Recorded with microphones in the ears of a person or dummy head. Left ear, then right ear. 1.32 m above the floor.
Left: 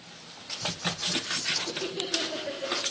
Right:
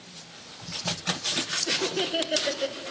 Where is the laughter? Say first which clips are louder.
Right 4 dB; 35° right (ahead or behind), 0.9 m; by 2.8 s 80° right, 1.0 m.